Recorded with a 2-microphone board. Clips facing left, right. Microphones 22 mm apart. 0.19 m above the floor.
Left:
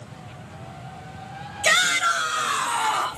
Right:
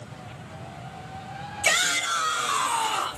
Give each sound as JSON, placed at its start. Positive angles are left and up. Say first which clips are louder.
{"t": 1.6, "sound": "a shout", "louder": "left 4 dB", "side_deg": 55, "distance_m": 2.5}